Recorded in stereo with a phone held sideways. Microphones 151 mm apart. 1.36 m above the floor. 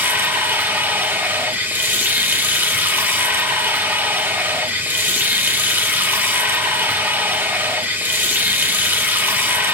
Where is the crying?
I don't hear crying.